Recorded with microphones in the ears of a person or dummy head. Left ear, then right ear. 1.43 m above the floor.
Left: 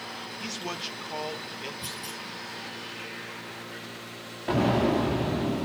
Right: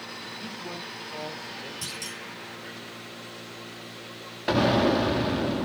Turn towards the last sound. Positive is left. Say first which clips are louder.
# right 2 dB
turn(degrees=-40)  # may be behind; listen again after turning